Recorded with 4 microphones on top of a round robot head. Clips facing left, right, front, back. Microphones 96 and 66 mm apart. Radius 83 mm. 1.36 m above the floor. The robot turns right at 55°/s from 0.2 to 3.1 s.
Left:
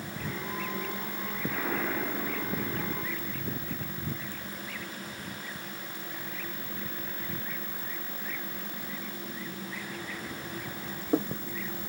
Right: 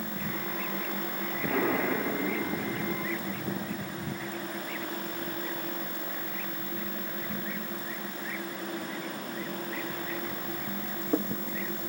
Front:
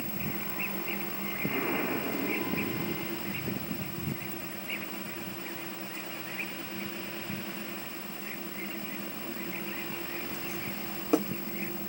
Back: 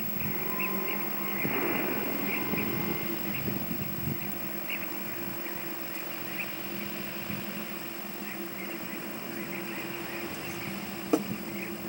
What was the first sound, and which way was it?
An explosion, 110° right.